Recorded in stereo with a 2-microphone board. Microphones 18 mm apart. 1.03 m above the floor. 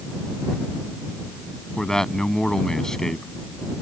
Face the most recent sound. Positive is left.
turn(degrees=30)  # may be behind; listen again after turning